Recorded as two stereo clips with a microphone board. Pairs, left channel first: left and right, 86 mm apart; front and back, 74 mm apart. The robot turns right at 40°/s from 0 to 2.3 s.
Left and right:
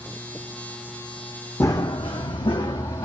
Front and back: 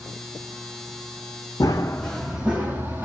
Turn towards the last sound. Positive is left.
turn(degrees=120)